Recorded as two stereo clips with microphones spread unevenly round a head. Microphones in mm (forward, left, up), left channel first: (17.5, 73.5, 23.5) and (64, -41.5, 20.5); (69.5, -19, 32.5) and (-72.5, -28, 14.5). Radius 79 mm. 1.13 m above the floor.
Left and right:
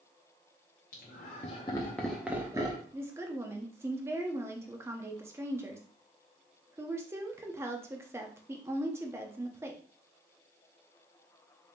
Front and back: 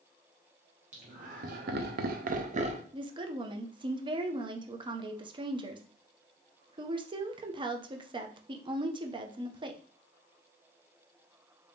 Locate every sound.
0.9 s laughter: 140° left, 0.8 m; by 2.8 s 130° right, 0.8 m
2.9 s a woman speaking: 135° right, 0.6 m